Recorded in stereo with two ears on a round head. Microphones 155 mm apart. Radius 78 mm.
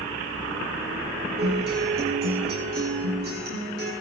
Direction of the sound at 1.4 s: 55° right (ahead or behind).